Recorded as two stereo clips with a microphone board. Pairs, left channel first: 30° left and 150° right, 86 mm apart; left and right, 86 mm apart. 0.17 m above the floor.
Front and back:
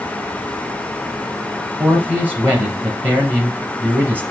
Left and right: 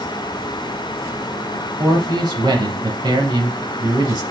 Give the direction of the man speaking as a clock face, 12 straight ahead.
3 o'clock.